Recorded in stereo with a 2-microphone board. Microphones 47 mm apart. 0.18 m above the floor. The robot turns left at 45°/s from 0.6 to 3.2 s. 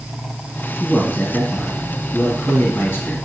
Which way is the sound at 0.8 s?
135° left.